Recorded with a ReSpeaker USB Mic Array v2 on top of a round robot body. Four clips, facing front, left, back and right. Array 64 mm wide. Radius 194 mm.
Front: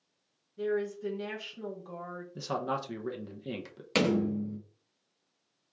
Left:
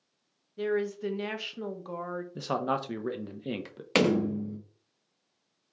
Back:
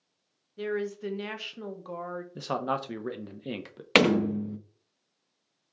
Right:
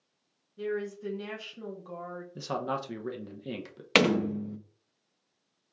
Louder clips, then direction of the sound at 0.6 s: Left 4 dB, even; 140° left.